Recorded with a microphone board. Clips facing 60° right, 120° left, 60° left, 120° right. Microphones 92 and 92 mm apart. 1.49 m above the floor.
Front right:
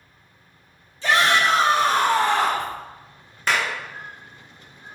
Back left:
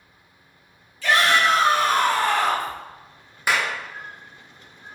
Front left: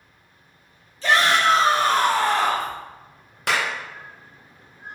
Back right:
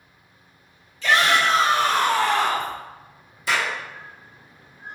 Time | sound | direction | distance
1.0 | a shout | 5° left | 3 m
3.5 | a clap | 40° left | 1.5 m